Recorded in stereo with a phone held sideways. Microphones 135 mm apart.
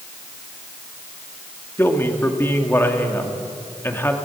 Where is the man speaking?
15° left (ahead or behind), 2 m.